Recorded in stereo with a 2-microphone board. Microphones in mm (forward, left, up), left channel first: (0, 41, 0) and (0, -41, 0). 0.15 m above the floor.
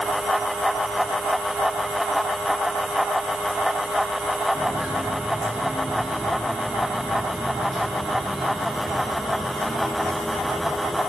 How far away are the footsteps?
About 5.5 m.